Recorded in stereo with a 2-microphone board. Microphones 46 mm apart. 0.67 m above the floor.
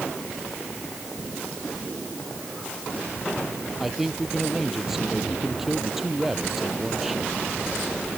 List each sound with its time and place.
3.8 s a man speaking: 5° right (ahead or behind)